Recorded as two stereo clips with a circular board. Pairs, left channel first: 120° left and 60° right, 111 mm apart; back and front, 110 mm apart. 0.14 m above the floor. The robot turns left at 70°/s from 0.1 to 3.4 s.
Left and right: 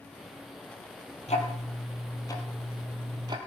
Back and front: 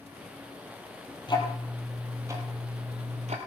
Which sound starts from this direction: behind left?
Ticking, at 1.3 s.